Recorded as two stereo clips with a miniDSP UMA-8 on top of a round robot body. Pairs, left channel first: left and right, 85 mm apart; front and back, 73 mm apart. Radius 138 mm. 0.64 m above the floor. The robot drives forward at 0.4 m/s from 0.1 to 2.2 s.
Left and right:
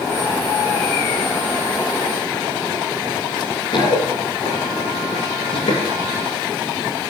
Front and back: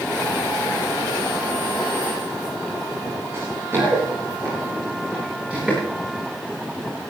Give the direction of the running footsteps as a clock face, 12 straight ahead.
8 o'clock.